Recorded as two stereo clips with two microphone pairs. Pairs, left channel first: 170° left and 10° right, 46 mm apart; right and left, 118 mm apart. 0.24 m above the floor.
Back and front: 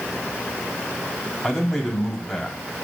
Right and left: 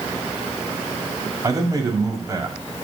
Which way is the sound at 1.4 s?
85° left.